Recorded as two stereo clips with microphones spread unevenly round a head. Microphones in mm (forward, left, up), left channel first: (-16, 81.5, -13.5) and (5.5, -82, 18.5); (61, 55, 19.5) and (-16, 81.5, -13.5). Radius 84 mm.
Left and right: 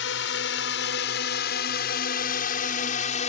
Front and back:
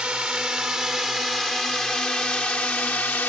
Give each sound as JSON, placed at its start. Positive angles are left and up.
{"t": 0.0, "sound": "a drone", "azimuth_deg": 80}